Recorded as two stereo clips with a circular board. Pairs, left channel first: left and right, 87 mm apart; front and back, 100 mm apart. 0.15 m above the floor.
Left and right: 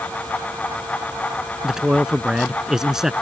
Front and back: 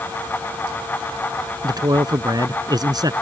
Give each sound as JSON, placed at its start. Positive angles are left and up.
{"t": 1.6, "sound": "a man speaking", "azimuth_deg": -170}